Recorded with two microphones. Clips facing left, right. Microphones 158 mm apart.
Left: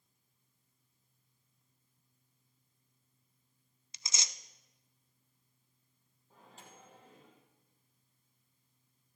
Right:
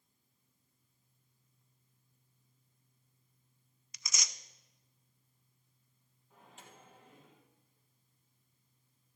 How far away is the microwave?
About 3 m.